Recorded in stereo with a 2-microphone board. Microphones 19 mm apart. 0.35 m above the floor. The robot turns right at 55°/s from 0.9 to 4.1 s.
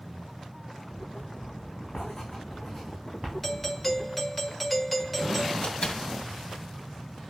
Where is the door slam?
60° left (ahead or behind), 2 m.